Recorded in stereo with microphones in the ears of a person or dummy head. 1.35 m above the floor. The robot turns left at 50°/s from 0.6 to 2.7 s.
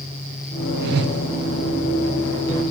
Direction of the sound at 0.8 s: 55° right (ahead or behind).